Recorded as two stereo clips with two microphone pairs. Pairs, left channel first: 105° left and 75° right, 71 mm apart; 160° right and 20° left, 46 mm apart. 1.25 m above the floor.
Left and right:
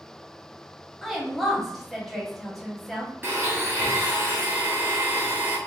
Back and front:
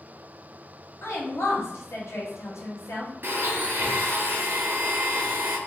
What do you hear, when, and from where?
1.0 s a woman speaking: 165° right, 0.9 m
3.2 s a blender: 15° right, 0.8 m